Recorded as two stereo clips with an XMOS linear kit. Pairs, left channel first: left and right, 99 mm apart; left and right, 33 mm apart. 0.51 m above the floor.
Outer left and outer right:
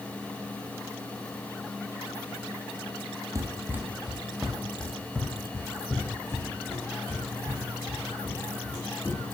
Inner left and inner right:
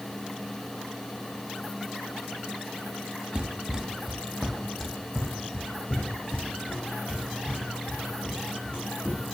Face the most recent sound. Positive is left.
turn(degrees=30)  # may be behind; listen again after turning